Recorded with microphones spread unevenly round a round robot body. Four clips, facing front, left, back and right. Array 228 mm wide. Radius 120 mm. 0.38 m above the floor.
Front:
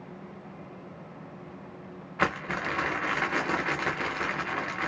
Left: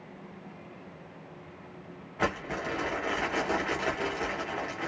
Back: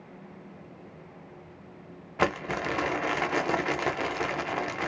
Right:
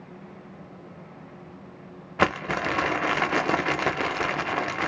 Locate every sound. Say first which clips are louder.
2.2 s crumpling: right 7 dB, back 2 dB; 95° right, 0.6 m